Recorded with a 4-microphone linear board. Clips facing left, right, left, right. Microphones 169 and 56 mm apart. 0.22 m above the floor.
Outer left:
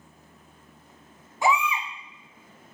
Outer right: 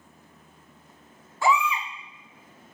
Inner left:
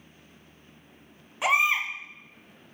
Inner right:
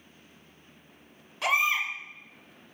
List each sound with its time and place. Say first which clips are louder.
1.4 s a baby crying: even, inner left 2 dB; 20° left (ahead or behind), 1.3 m